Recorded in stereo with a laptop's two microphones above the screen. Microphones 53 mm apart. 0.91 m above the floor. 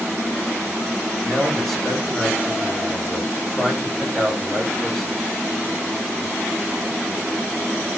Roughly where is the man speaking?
Centre.